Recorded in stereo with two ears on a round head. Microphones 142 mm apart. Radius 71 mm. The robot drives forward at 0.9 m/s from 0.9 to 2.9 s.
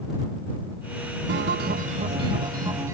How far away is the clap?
I don't hear a clap.